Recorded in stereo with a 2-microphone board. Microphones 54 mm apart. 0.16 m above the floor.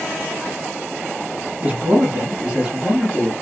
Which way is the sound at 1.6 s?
35° right (ahead or behind).